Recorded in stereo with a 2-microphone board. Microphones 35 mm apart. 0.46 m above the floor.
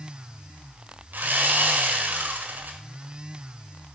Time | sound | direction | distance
1.1 | sawing | 55° right (ahead or behind) | 1.6 m